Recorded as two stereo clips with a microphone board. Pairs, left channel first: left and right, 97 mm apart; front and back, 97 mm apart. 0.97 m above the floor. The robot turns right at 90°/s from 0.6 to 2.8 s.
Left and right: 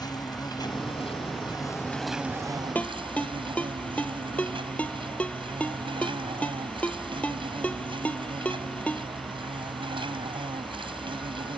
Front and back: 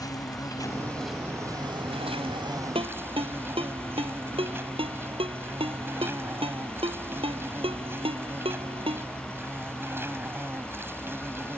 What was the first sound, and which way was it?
An insect, 45° left.